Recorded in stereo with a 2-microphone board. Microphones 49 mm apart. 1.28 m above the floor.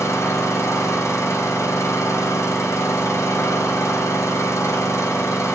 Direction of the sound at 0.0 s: 85° left.